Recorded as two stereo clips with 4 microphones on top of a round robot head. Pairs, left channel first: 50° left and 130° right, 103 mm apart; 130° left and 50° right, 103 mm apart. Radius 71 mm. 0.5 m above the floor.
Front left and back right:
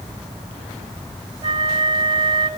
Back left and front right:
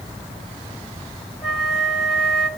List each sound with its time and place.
1.4 s a flute: 140° right, 1.7 m